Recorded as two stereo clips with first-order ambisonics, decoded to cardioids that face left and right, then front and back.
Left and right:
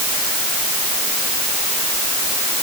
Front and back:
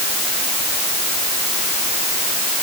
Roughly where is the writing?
No writing in this recording.